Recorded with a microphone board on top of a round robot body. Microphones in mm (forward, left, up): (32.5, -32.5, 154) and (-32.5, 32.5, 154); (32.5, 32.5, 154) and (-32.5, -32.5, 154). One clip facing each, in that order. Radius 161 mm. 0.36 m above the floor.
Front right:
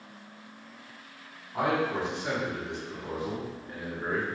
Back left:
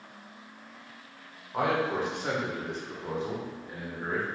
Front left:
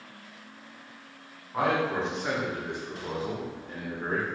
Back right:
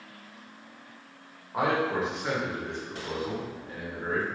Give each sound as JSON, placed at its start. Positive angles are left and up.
{"t": 1.5, "sound": "a man speaking", "azimuth_deg": 150, "distance_m": 1.7}